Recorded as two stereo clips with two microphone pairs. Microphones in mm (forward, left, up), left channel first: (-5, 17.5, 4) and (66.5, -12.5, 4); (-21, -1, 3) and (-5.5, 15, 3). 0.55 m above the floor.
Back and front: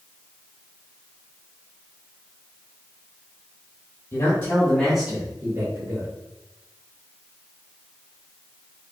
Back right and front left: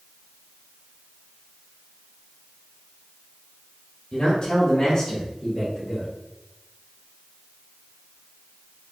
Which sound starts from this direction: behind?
A man speaking, at 4.1 s.